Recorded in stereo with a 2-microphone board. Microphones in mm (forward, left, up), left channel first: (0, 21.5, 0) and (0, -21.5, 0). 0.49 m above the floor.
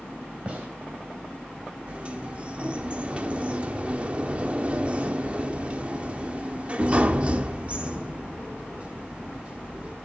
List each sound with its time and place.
0.5 s a gunshot: 30° right (ahead or behind), 3 m
1.9 s a sliding door: 30° right (ahead or behind), 0.9 m